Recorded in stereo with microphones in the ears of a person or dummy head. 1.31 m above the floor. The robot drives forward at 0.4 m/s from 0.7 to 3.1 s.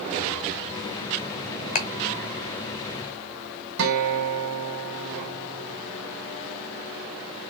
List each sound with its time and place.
1.8 s ticking: 45° left (ahead or behind), 0.9 m; by 1.9 s 40° left (ahead or behind), 0.9 m
3.8 s a guitar: 75° right (ahead or behind), 1.4 m